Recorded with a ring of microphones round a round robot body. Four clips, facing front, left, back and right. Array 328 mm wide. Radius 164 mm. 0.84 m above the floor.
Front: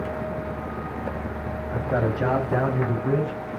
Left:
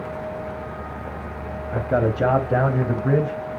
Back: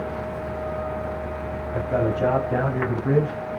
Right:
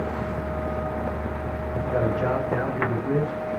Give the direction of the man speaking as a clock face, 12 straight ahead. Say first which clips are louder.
Left 4 dB, back 2 dB; 9 o'clock.